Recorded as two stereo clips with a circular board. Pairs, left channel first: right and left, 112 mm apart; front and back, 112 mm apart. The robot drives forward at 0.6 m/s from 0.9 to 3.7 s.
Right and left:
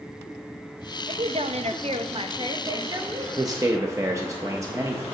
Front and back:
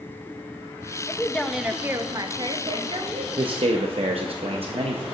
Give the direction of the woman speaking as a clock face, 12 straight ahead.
10 o'clock.